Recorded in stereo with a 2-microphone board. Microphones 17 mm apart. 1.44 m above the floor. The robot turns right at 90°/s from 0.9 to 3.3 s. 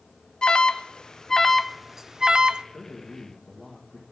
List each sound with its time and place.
0.4 s an alarm: 65° left (ahead or behind), 0.5 m; by 2.6 s 65° right (ahead or behind), 0.5 m
2.7 s a man speaking: 110° left, 1.8 m; by 4.0 s 160° left, 1.8 m